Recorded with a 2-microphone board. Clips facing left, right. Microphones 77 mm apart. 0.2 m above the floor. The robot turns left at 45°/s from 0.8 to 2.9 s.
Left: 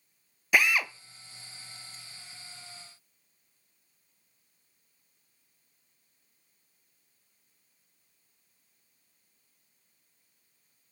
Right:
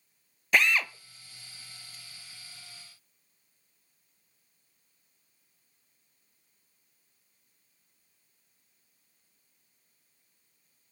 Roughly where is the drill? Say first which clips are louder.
Even; centre.